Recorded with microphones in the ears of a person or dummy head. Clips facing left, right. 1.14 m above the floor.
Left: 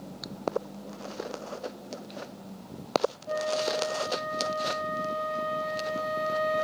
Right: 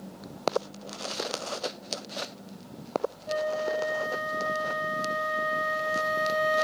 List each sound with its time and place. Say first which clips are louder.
3.3 s a flute: right 4 dB; 15° right (ahead or behind), 0.6 m